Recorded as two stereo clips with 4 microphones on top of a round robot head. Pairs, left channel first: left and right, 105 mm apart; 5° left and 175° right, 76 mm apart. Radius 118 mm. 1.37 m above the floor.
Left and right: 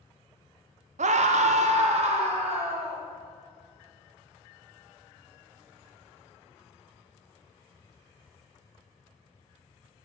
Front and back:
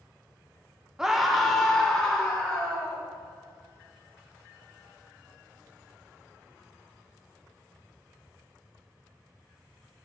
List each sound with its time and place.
1.0 s a scream: 90° right, 0.5 m; by 3.0 s 70° right, 1.7 m